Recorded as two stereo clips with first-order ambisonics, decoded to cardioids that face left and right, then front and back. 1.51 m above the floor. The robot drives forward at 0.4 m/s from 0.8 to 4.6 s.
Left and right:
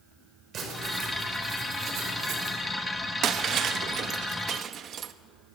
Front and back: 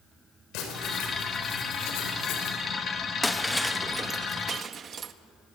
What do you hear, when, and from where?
0.5 s writing: 30° right, 6 m; by 2.6 s 35° right, 5.5 m
3.2 s breaking glass: 80° right, 0.9 m; by 5.1 s 130° right, 1.0 m